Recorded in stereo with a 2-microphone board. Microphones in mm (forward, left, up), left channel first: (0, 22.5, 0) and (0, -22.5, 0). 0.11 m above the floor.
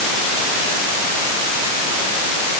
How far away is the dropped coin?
No dropped coin in this recording.